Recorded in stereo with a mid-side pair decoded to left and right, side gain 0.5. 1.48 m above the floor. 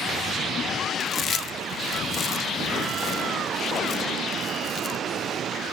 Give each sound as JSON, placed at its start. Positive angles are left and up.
{"t": 1.0, "sound": "chewing", "azimuth_deg": 50, "distance_m": 0.8}